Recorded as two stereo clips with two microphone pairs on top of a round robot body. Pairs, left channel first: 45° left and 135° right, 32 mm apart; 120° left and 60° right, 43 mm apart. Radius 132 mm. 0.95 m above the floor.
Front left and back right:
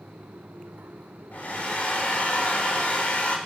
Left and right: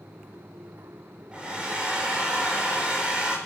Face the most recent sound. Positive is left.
turn(degrees=5)